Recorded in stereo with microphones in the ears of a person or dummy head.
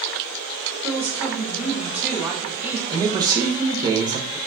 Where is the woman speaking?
10° right (ahead or behind), 0.6 m.